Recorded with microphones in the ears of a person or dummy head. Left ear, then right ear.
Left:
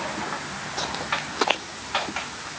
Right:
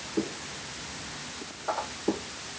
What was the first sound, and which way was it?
Only background noise.